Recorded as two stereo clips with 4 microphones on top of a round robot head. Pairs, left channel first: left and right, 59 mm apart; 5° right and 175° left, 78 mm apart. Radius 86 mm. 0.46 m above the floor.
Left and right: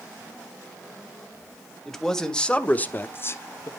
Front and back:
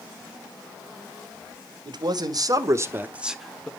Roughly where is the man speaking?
Behind.